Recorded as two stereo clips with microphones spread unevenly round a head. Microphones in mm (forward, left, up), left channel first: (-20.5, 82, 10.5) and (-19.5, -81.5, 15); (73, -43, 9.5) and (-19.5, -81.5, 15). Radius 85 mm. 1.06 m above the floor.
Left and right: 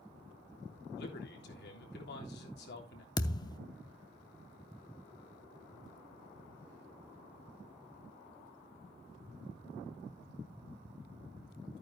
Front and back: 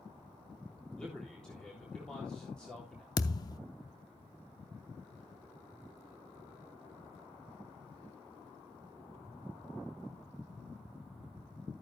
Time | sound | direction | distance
1.0 | a man speaking | 105° left | 3.5 m
3.2 | a thud | 40° left | 0.6 m